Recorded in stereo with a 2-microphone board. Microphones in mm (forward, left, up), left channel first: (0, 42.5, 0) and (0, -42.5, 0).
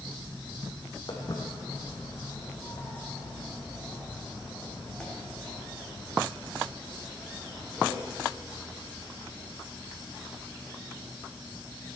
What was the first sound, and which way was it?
Footsteps, 50° left (ahead or behind).